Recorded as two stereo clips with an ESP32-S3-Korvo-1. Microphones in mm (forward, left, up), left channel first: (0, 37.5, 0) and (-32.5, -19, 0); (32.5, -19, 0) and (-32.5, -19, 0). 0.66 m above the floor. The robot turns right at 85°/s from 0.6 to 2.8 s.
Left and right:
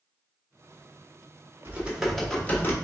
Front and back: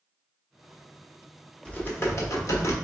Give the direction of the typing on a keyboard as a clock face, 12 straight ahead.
2 o'clock.